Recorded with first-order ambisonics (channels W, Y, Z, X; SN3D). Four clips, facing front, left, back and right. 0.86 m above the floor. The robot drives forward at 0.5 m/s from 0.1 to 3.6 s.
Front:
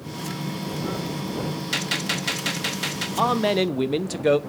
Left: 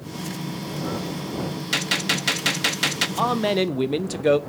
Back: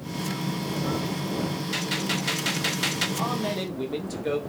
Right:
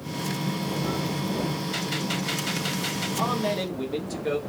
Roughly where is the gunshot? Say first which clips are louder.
Left 5 dB, front 4 dB; ahead left.